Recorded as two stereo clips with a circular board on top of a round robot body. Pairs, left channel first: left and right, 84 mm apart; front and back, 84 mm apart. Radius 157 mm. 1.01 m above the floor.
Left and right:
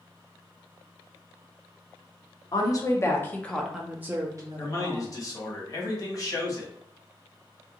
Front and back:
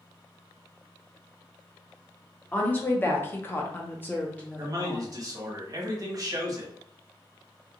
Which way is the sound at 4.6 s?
135° left.